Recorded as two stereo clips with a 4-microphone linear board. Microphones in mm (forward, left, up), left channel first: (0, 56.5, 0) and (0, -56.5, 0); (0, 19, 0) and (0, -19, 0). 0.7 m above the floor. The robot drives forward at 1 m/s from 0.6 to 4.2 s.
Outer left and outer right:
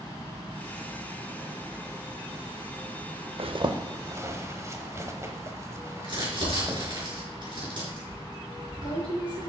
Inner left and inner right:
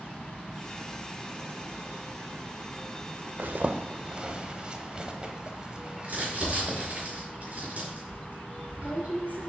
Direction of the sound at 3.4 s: 60° right (ahead or behind).